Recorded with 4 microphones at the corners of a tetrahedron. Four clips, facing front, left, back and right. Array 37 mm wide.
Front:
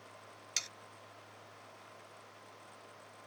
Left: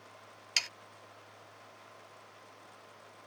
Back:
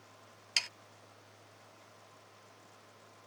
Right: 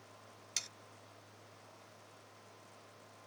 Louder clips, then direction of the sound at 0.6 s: Left 10 dB, back 5 dB; 125° left.